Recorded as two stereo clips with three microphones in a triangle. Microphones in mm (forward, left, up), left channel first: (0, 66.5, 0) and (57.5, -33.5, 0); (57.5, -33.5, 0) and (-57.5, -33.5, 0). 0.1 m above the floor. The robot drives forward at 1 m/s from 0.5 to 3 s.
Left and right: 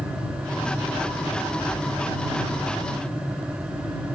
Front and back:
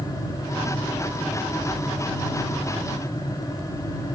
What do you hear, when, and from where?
Only background noise.